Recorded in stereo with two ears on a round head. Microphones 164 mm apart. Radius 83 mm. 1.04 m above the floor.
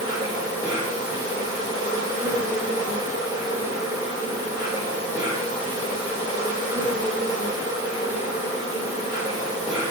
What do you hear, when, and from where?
0.0 s an insect: 25° right (ahead or behind), 8.5 m